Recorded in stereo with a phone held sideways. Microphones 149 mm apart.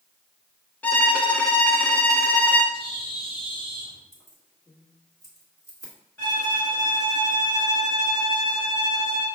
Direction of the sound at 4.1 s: 25° left (ahead or behind).